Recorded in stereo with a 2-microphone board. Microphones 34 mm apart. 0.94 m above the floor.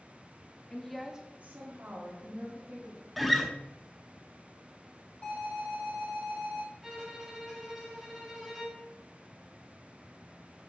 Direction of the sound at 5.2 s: 45° left (ahead or behind).